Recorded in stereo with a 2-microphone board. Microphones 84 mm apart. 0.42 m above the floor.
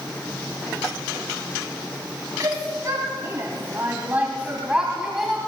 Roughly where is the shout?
Right.